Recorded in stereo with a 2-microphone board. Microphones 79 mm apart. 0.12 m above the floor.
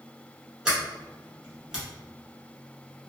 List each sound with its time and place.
0.7 s a sliding door: 10° right (ahead or behind), 1.4 m